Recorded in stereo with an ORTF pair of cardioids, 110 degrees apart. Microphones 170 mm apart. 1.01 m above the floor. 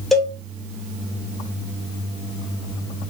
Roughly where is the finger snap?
I don't hear a finger snap.